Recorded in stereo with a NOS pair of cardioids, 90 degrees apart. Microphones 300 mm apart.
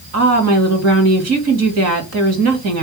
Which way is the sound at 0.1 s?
55° right.